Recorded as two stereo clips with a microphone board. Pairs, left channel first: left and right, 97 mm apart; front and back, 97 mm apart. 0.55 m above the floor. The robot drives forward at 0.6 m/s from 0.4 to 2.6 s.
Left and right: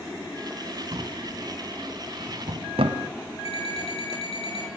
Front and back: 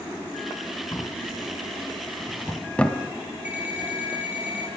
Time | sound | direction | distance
0.9 | a drawer | 55° right | 2.5 m
3.5 | an alarm clock | 105° left | 9.5 m